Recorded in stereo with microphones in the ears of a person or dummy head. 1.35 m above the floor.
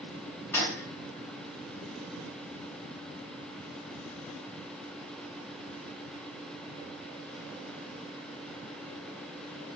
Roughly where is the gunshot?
Centre.